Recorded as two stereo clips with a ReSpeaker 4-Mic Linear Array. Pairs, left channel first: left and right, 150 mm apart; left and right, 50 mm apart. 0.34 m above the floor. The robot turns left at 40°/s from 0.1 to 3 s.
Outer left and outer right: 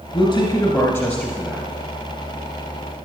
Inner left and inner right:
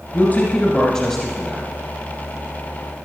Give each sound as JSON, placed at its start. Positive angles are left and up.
{"t": 0.1, "sound": "a man speaking", "azimuth_deg": 50, "distance_m": 2.0}